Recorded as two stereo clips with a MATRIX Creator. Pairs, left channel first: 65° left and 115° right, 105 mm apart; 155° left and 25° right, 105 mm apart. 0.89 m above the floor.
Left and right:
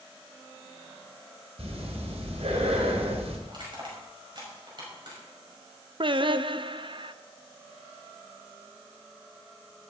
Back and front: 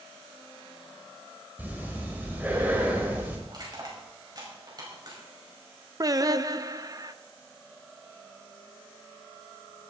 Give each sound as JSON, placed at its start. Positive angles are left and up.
{"t": 1.6, "sound": "breathing", "azimuth_deg": -95, "distance_m": 2.5}
{"t": 3.5, "sound": "crushing", "azimuth_deg": -70, "distance_m": 5.5}
{"t": 6.0, "sound": "singing", "azimuth_deg": -75, "distance_m": 0.5}